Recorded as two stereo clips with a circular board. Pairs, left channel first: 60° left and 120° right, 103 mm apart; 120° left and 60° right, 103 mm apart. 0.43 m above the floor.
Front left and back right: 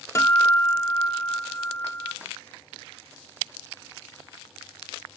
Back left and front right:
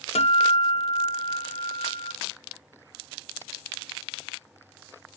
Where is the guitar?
125° left, 0.6 m.